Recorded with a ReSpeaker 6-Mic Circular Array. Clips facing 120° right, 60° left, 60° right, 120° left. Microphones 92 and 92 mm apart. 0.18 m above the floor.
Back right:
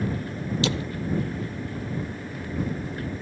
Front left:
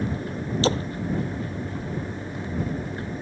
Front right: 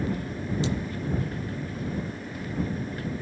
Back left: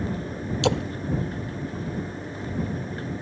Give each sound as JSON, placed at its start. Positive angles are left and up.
{"t": 0.6, "sound": "a splash", "azimuth_deg": 115}